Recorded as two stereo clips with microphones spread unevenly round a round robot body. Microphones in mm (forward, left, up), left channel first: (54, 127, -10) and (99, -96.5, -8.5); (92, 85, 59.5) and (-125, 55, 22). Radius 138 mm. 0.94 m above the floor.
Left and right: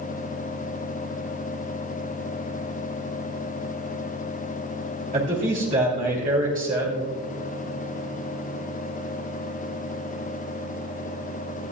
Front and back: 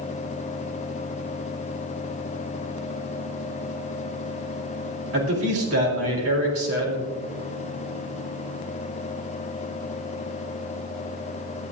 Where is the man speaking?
145° right, 3 m.